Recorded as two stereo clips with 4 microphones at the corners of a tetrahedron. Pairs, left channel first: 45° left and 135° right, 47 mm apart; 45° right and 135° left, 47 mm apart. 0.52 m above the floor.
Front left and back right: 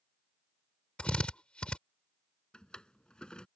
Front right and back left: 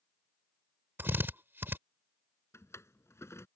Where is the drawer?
25° right.